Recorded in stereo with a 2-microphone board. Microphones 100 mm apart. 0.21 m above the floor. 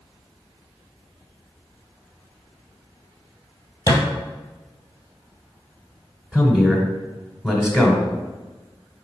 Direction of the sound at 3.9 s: 35° left (ahead or behind).